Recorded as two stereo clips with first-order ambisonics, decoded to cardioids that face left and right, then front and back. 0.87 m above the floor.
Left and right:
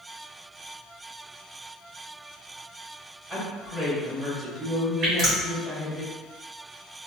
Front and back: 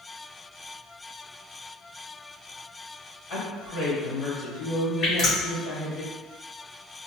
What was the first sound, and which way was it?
A woman speaking, 20° right.